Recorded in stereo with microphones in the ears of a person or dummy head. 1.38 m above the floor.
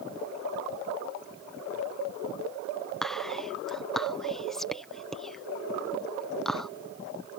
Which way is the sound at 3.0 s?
5° left (ahead or behind).